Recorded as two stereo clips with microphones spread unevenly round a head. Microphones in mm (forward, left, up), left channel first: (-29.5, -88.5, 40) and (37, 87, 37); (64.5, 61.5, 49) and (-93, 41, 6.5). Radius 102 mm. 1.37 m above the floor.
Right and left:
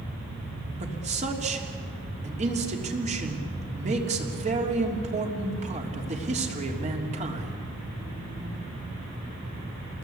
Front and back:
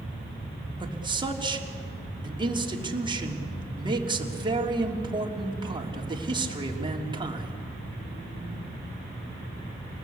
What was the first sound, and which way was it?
A man speaking, 125° left.